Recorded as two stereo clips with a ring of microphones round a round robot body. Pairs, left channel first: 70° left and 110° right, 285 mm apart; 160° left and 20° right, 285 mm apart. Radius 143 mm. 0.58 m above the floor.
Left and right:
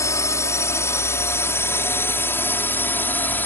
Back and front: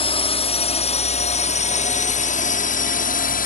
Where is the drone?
130° left; by 3.5 s 145° left.